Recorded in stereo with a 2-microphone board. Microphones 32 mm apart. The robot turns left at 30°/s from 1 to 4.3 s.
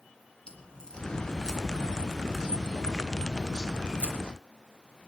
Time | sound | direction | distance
0.5 | a crack | 35° left (ahead or behind) | 2.5 m